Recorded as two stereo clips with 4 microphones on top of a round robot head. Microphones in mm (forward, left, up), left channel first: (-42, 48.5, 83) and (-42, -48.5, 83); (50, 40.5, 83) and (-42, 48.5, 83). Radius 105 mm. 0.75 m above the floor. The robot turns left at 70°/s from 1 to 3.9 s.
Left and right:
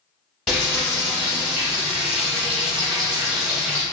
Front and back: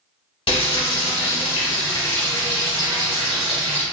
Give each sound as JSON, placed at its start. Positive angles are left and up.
{"t": 0.5, "sound": "frying", "azimuth_deg": 5, "distance_m": 1.3}